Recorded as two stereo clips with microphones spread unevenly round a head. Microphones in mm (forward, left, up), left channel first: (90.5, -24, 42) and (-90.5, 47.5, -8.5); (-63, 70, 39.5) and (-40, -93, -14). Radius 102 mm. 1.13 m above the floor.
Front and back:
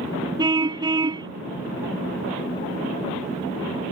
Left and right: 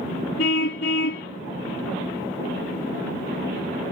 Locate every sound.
0.4 s a car horn: 85° left